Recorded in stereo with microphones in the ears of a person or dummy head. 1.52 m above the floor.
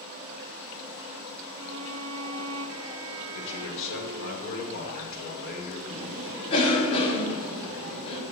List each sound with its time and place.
1.6 s a violin: 80° right, 0.8 m
3.3 s a man speaking: 65° left (ahead or behind), 4.5 m
5.9 s a cough: 30° left (ahead or behind), 5 m